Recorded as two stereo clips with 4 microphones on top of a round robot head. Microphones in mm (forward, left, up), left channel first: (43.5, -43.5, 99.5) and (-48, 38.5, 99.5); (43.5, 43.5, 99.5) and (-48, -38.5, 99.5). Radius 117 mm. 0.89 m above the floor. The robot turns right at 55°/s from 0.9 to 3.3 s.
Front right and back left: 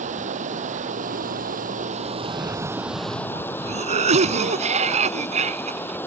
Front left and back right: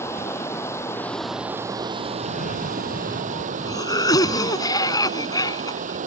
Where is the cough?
45° left; by 6.0 s 105° left.